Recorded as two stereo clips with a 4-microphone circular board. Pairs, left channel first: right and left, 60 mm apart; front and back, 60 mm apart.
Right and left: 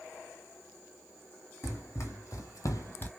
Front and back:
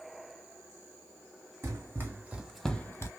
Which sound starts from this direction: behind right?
Running footsteps, at 1.6 s.